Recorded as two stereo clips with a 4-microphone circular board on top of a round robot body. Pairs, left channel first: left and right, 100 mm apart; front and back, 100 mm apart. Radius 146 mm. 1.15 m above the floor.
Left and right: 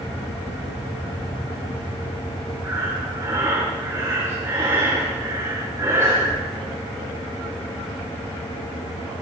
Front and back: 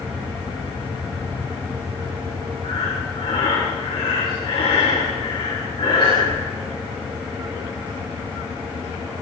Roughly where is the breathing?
Ahead right.